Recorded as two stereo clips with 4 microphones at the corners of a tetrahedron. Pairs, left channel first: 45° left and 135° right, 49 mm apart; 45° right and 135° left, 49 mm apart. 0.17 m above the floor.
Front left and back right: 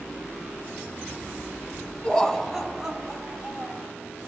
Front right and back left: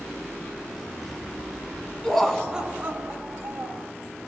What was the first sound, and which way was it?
Laughter, 5° left.